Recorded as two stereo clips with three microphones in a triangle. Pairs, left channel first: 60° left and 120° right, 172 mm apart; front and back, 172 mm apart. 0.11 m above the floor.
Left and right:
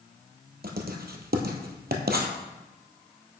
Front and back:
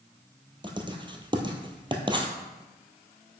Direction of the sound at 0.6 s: 120° right.